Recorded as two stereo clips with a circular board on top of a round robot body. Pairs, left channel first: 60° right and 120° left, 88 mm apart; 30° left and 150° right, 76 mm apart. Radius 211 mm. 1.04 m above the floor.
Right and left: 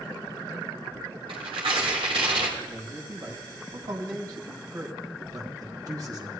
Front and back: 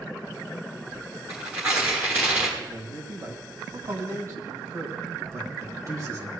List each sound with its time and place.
1.3 s tearing paper: 145° left, 1.3 m
2.6 s a man speaking: 170° left, 2.5 m